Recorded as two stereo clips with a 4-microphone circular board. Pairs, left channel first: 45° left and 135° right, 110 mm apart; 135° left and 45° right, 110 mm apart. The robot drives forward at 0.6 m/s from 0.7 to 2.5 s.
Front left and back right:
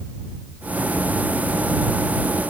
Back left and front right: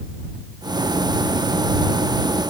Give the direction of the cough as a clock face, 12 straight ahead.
No cough in this recording.